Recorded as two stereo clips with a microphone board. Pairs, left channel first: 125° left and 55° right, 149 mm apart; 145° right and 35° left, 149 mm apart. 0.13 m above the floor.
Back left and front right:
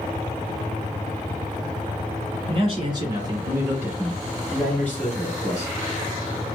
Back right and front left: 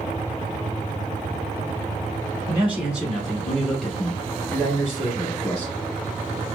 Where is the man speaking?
40° right, 1.4 m; by 5.8 s 160° left, 1.3 m.